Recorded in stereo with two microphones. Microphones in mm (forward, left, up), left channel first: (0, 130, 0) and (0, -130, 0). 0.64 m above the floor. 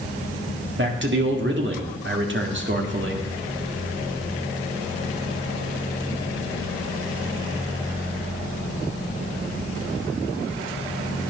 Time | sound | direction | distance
0.8 | a man speaking | 45° right (ahead or behind) | 1.7 m